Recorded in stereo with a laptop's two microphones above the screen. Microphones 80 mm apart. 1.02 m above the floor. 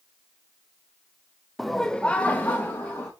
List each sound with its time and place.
1.6 s laughter: centre (ahead or behind), 0.7 m; by 3.1 s 25° left (ahead or behind), 1.2 m